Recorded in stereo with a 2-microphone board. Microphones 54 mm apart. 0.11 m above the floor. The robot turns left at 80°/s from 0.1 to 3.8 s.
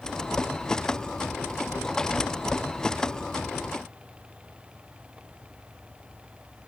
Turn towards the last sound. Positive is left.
No sound to turn to.